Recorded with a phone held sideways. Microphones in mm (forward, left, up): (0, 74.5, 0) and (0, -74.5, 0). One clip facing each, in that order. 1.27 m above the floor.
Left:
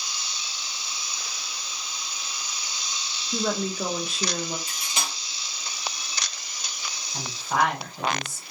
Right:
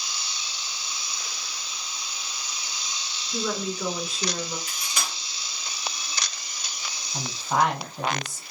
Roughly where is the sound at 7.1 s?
Centre.